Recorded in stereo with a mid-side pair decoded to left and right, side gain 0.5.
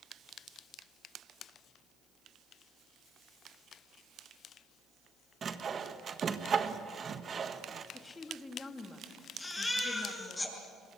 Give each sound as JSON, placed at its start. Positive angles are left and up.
{"t": 5.4, "sound": "sawing", "azimuth_deg": -40, "distance_m": 1.5}
{"t": 7.9, "sound": "a woman speaking", "azimuth_deg": 25, "distance_m": 3.0}
{"t": 9.4, "sound": "a baby crying", "azimuth_deg": 20, "distance_m": 8.0}